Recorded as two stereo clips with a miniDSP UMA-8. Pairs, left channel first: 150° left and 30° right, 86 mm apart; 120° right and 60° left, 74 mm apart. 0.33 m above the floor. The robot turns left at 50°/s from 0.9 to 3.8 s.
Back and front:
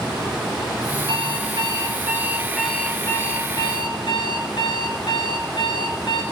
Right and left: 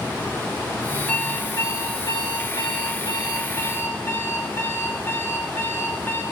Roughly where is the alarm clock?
Ahead right.